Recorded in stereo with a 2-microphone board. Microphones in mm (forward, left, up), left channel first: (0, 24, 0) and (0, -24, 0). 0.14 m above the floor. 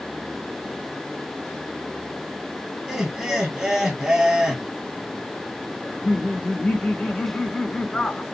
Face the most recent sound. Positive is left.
turn(degrees=20)  # may be behind; listen again after turning